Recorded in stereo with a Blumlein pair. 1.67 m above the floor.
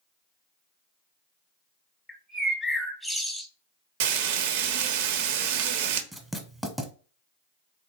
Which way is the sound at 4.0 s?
50° right.